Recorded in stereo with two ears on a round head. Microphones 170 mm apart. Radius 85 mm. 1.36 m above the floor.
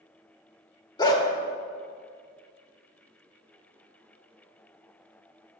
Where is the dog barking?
25° left (ahead or behind), 1.1 m.